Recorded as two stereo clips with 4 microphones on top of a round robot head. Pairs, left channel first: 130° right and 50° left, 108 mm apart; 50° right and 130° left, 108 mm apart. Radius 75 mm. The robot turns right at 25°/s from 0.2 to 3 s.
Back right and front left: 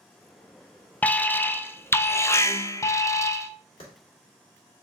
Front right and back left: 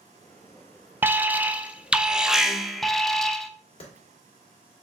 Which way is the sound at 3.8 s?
90° right.